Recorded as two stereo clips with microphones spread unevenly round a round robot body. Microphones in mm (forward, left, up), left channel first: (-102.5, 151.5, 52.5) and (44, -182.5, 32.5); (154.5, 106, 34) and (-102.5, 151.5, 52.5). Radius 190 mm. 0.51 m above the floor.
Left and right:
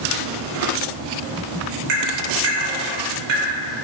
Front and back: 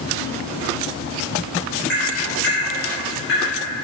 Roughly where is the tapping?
Right.